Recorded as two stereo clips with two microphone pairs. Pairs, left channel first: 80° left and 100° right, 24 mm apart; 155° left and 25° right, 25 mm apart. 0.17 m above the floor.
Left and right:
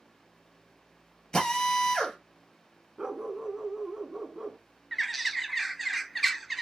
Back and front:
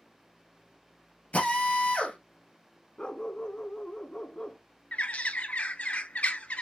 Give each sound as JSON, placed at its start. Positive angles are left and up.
{"t": 1.3, "sound": "a drill", "azimuth_deg": 145, "distance_m": 1.9}
{"t": 3.0, "sound": "a dog barking", "azimuth_deg": -160, "distance_m": 0.6}
{"t": 4.9, "sound": "a bird", "azimuth_deg": 170, "distance_m": 0.5}